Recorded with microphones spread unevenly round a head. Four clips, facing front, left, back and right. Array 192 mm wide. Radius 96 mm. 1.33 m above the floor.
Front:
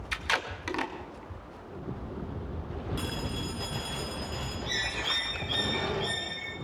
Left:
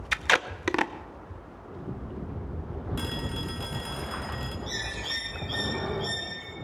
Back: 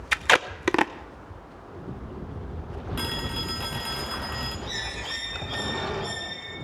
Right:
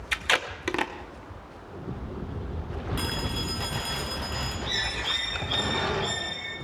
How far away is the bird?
About 2.5 m.